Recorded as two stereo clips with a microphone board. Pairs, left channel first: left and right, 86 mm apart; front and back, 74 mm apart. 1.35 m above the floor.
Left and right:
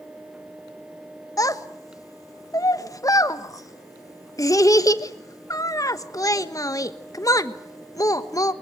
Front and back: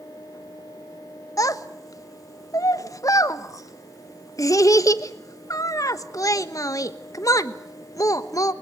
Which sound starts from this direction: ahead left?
A child speaking, at 1.4 s.